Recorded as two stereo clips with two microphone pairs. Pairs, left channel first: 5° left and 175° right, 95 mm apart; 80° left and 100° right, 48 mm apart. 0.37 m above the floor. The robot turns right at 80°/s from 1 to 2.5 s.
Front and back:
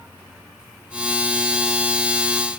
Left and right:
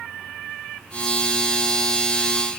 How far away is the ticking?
No ticking in this recording.